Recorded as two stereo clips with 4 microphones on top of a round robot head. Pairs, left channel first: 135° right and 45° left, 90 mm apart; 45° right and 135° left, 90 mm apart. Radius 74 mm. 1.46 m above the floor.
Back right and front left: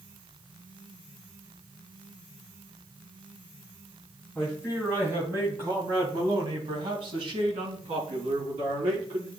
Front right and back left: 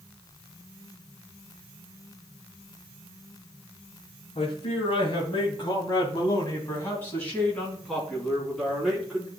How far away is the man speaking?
About 2.5 m.